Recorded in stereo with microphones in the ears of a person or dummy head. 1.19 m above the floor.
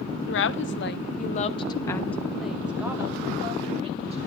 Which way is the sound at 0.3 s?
60° left (ahead or behind).